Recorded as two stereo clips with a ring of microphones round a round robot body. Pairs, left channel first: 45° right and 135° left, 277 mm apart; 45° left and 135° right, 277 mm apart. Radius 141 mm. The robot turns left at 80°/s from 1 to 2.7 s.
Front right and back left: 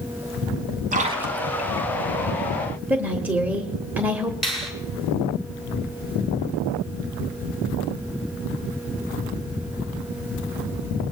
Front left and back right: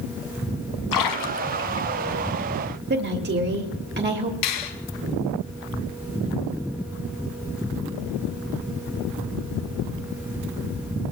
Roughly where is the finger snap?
Ahead left.